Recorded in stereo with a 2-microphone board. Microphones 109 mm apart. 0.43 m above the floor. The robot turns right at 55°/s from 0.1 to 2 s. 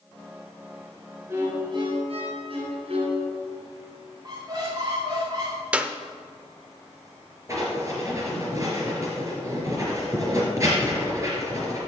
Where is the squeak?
40° right (ahead or behind), 2.5 m.